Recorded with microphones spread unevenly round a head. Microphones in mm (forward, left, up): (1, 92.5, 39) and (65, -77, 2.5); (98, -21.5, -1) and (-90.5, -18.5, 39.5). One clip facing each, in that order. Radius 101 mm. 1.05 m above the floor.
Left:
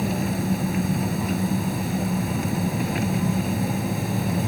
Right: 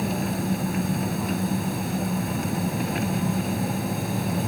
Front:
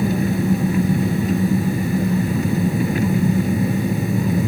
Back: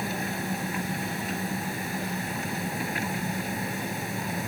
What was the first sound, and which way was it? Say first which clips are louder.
An engine running: left 1 dB, front 13 dB; 25° left.